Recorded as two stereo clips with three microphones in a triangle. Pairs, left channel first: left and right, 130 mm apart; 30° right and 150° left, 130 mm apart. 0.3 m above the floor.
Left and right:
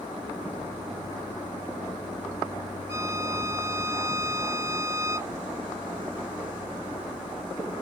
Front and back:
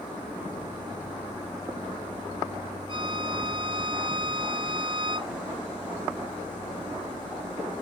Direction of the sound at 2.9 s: 160° right.